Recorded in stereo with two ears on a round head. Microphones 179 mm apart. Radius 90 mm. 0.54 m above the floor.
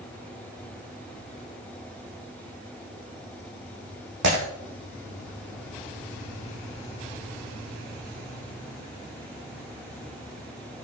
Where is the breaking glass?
65° right (ahead or behind), 6.5 m.